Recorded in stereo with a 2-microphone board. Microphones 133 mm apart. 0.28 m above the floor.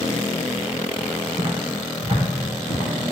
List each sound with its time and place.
1.4 s footsteps: 45° right (ahead or behind), 1.4 m; by 2.9 s 60° right (ahead or behind), 2.5 m